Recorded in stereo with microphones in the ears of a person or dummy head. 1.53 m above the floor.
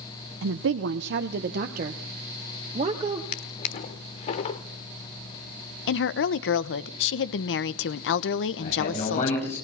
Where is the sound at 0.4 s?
80° right, 1.0 m; by 3.2 s 35° right (ahead or behind), 2.0 m.